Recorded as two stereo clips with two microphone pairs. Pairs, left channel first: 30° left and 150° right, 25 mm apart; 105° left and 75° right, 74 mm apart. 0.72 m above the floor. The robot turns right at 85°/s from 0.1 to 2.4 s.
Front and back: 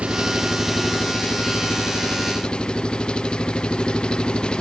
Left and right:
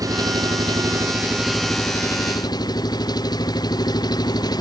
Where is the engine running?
110° right; by 4.6 s 85° left.